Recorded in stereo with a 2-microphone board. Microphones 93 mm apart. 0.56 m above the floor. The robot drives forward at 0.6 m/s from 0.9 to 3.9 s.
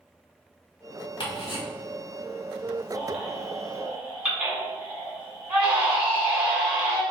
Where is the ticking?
60° left (ahead or behind), 1.5 m.